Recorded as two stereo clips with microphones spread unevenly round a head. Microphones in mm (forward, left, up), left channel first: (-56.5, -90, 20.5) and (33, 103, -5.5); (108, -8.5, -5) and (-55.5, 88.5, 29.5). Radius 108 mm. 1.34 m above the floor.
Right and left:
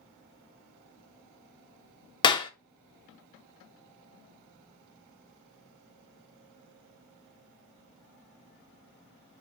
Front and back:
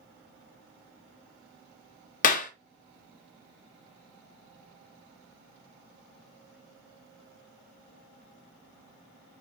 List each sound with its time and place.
2.2 s a clap: 70° right, 0.5 m